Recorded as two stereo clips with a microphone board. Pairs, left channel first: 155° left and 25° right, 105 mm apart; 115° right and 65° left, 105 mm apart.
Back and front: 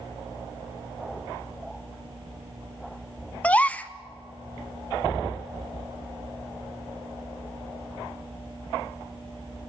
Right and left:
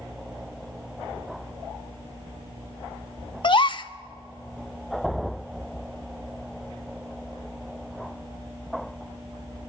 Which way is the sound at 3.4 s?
130° right.